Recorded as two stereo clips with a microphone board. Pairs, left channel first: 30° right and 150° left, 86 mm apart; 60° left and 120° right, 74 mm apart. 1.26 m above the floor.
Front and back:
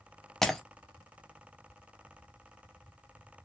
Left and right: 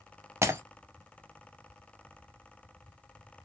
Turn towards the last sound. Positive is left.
turn(degrees=-110)